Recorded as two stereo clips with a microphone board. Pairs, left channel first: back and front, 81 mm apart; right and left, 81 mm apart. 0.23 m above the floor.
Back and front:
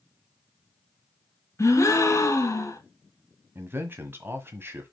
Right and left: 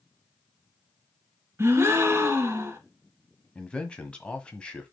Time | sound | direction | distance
1.6 | a gasp | 140° left | 1.5 m
3.5 | a man speaking | 25° right | 1.4 m